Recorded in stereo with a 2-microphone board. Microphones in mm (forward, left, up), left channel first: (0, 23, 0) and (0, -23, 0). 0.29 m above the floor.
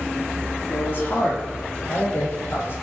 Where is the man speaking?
45° left (ahead or behind), 8.5 m; by 2.7 s 50° left (ahead or behind), 9 m.